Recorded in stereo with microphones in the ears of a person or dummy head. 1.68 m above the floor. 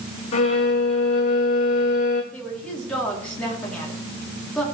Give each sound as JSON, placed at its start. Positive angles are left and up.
{"t": 0.3, "sound": "a violin", "side_deg": 45, "distance_m": 2.0}
{"t": 2.3, "sound": "a woman speaking", "side_deg": 5, "distance_m": 4.5}